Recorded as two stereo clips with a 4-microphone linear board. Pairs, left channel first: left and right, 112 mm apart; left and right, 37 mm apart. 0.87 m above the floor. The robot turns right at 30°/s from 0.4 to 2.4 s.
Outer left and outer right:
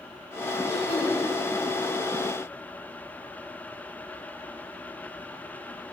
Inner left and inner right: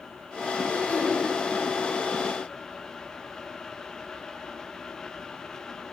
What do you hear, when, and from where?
0.7 s throat clearing: 40° left (ahead or behind), 6.5 m; by 1.2 s 55° left (ahead or behind), 6.5 m